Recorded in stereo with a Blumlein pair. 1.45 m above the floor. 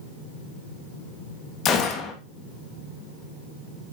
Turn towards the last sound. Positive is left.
turn(degrees=30)